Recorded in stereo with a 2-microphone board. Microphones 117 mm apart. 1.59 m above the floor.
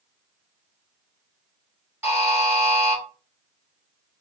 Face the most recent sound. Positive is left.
turn(degrees=-25)  # may be behind; listen again after turning